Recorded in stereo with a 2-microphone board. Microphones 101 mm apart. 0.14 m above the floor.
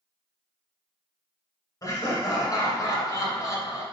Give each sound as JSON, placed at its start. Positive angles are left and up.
{"t": 1.8, "sound": "laughter", "side_deg": 35, "distance_m": 1.4}